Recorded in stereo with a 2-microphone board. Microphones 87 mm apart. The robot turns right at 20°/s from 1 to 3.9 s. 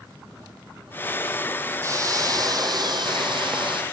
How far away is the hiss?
About 2 m.